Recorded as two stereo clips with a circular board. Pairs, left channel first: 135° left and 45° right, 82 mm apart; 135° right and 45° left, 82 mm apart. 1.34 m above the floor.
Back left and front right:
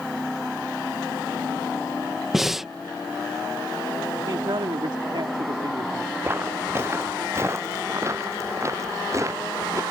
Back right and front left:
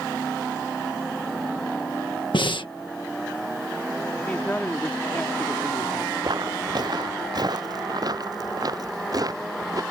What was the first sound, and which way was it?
Breathing, 130° right.